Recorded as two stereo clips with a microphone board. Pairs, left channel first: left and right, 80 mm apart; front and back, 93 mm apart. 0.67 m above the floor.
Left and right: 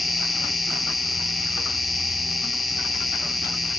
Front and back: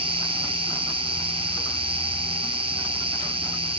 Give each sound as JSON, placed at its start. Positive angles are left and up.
{"t": 0.0, "sound": "an insect", "azimuth_deg": 180, "distance_m": 2.5}